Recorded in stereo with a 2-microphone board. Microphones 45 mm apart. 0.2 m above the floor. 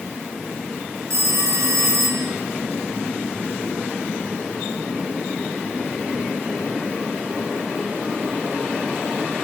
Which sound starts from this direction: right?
A phone ringing, at 1.1 s.